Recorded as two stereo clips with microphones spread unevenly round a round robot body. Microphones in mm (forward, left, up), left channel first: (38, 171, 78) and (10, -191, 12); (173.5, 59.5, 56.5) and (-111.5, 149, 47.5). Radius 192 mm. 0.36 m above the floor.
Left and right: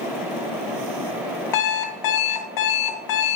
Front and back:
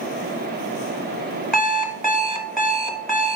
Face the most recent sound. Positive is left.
turn(degrees=70)